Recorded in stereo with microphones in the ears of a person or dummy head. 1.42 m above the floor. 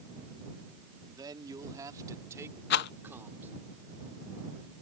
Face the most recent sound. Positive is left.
turn(degrees=65)  # may be behind; listen again after turning